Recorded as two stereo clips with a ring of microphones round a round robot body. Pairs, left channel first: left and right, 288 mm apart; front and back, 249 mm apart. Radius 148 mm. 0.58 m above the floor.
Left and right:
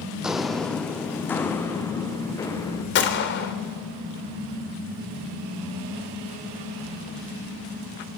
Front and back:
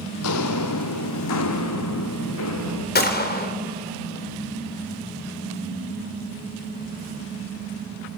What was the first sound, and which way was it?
Footsteps, 5° right.